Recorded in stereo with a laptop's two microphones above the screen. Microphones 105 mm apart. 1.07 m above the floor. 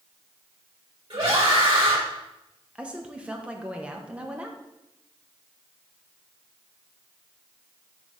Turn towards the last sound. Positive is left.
turn(degrees=-10)  # may be behind; listen again after turning